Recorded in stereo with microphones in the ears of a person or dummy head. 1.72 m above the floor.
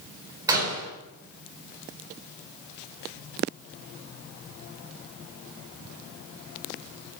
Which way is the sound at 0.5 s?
15° right (ahead or behind).